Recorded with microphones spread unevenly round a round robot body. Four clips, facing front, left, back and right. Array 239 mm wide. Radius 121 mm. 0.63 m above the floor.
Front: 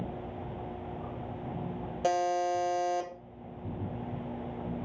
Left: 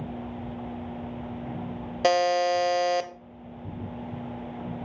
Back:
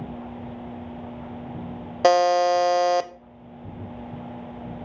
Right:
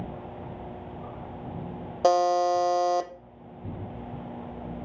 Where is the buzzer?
170° right, 0.6 m.